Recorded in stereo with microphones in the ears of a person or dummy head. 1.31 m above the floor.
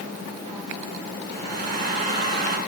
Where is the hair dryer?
50° right (ahead or behind), 8.5 m.